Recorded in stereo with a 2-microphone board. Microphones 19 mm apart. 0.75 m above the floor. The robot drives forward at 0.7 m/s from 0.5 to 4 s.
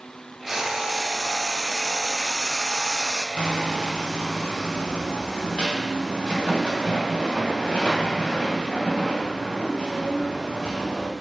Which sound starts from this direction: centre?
Frying, at 0.5 s.